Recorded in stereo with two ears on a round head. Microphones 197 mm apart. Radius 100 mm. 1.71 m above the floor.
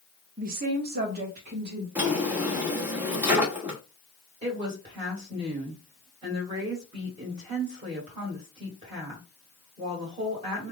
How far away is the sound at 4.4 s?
About 1.7 m.